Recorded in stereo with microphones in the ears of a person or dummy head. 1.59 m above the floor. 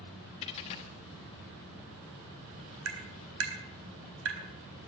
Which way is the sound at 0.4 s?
20° left (ahead or behind).